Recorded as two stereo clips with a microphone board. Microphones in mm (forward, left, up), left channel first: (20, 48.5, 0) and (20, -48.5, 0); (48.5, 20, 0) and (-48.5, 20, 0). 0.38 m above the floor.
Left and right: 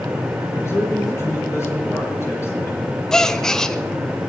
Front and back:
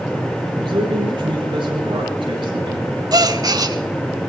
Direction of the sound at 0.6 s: 150° left.